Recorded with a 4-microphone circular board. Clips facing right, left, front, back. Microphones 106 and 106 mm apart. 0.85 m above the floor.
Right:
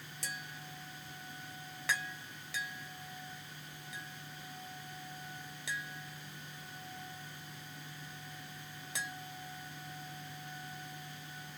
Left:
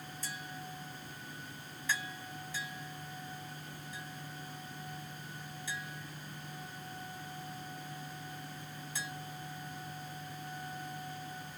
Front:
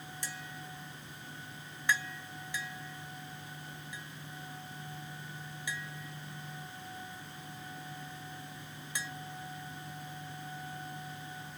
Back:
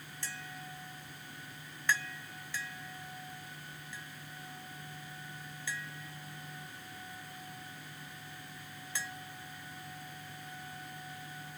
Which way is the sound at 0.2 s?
75° right.